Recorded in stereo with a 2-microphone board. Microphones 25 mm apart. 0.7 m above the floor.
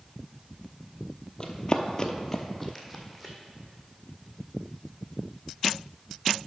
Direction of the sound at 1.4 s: 35° left (ahead or behind).